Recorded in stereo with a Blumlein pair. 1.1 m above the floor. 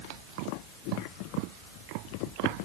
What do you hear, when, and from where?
Only background noise.